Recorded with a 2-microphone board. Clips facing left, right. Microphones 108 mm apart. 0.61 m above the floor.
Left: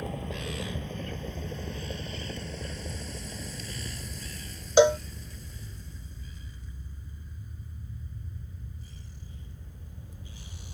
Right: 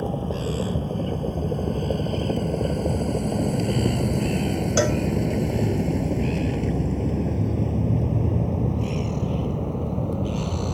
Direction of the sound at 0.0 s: 30° right (ahead or behind).